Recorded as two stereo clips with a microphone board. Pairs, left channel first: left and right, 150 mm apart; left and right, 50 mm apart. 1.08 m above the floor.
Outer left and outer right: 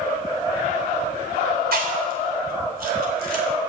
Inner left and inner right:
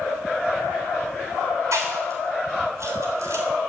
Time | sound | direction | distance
1.7 | chewing | 85° right | 3.5 m